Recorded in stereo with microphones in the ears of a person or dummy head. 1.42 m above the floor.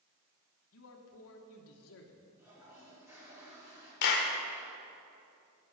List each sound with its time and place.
0.7 s a man speaking: 75° left (ahead or behind), 1.1 m
2.4 s a toilet flushing: 15° right (ahead or behind), 3 m
4.0 s a clap: 60° left (ahead or behind), 1.1 m